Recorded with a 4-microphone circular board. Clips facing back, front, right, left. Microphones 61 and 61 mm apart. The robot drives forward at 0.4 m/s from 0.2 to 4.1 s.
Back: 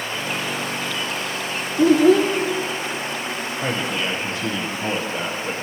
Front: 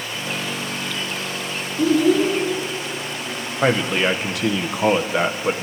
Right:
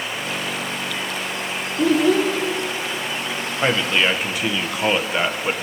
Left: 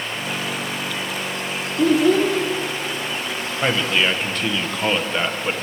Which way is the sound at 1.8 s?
Straight behind.